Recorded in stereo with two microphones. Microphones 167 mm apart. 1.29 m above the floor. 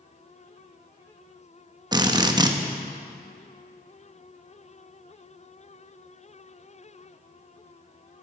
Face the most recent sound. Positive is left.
turn(degrees=-25)  # may be behind; listen again after turning